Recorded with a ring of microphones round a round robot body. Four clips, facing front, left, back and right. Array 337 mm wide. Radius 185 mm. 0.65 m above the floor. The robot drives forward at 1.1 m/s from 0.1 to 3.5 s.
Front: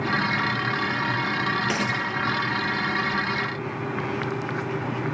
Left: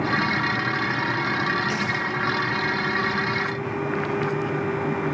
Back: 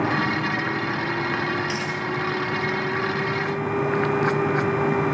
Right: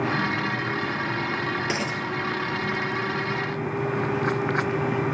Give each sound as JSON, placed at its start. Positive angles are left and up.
{"t": 1.6, "sound": "a dropped coin", "azimuth_deg": -60, "distance_m": 4.5}